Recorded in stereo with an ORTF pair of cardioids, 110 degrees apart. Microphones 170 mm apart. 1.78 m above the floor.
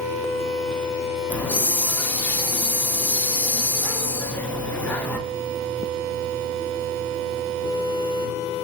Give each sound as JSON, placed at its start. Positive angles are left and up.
{"t": 1.3, "sound": "a hiss", "azimuth_deg": 10, "distance_m": 0.6}